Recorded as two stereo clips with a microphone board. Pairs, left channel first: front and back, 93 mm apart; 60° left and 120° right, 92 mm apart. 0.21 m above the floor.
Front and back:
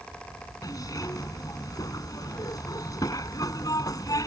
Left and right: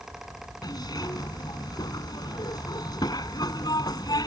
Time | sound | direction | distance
0.6 | a zipper | 35° left | ?